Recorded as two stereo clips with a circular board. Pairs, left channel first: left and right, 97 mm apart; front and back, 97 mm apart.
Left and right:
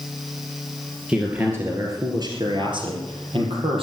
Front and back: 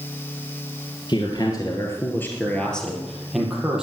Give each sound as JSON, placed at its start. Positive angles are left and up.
{"t": 1.1, "sound": "a man speaking", "azimuth_deg": -10, "distance_m": 2.5}